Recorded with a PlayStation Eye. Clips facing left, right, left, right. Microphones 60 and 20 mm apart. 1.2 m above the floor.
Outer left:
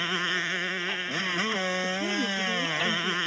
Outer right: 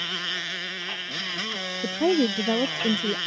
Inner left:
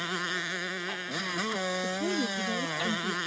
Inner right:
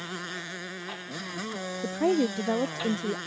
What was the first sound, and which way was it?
A motorcycle, 20° left (ahead or behind).